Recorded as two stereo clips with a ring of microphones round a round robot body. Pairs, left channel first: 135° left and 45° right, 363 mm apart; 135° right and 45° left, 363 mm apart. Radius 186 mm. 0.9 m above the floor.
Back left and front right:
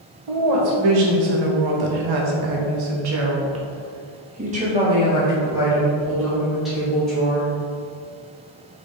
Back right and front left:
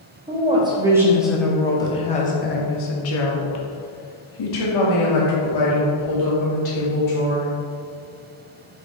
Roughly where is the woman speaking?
Ahead right.